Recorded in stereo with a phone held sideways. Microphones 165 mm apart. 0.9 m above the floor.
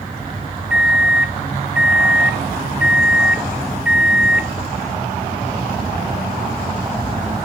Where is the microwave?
5° right (ahead or behind), 0.5 m.